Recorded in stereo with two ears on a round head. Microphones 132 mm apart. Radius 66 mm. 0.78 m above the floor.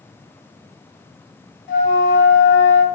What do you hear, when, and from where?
1.7 s a flute: 60° left (ahead or behind), 0.7 m